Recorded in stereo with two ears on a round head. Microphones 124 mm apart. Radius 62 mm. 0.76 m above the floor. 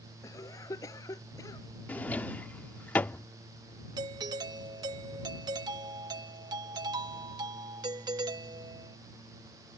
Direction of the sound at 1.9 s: 10° left (ahead or behind).